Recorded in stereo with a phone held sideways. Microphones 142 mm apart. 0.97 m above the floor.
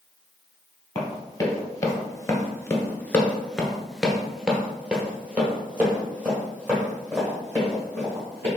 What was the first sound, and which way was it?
Running footsteps, 25° left (ahead or behind).